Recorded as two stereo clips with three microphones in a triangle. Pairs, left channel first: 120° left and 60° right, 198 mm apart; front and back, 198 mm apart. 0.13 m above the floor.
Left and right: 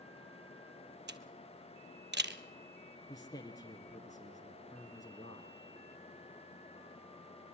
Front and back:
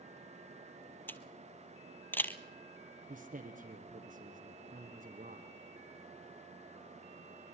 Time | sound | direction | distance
1.1 | a camera shutter | 80° right | 1.2 m
3.1 | a man speaking | 175° right | 1.9 m